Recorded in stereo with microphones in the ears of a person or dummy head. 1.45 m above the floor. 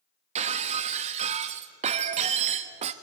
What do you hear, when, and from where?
0.3 s breaking glass: 35° right (ahead or behind), 1.0 m